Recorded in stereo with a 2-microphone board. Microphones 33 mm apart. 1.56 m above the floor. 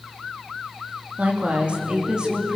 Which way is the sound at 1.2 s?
50° right (ahead or behind).